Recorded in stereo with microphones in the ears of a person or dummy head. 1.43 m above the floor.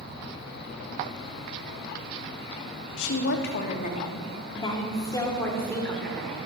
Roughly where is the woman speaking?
Left.